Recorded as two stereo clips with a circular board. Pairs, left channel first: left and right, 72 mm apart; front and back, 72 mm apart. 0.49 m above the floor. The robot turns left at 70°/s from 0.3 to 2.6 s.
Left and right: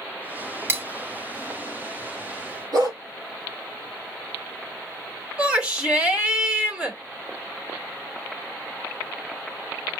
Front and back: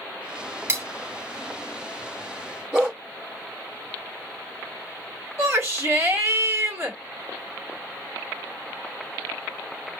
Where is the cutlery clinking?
135° right, 0.6 m; by 0.8 s 145° right, 0.6 m.